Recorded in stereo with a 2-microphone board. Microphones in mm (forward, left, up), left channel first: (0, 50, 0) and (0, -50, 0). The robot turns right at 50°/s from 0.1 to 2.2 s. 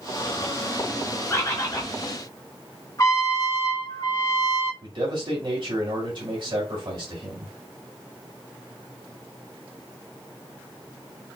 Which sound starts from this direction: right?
A man speaking, at 4.8 s.